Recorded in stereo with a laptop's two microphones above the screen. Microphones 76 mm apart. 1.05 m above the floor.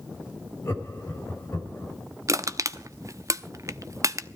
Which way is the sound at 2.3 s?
45° right (ahead or behind).